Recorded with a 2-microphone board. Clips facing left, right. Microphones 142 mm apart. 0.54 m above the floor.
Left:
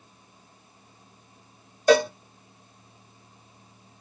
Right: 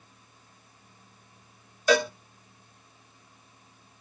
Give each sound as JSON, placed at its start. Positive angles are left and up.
{"t": 1.9, "sound": "a cowbell", "side_deg": 35, "distance_m": 0.7}